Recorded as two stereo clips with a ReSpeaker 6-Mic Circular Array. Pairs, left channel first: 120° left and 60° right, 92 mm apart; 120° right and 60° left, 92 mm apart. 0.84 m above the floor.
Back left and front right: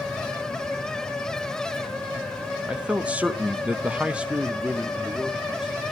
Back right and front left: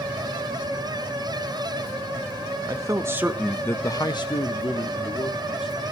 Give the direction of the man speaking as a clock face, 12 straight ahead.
11 o'clock.